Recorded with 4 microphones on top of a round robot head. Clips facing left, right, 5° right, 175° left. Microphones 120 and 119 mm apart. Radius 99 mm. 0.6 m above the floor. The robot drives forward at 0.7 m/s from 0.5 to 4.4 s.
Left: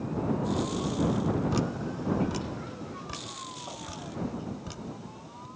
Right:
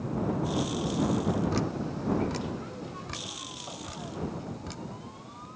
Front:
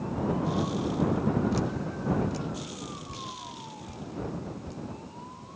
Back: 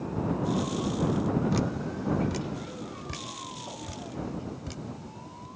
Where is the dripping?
160° left; by 5.5 s 170° left.